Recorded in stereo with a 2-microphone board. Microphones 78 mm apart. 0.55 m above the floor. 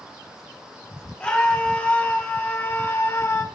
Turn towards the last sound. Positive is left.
turn(degrees=40)  # may be behind; listen again after turning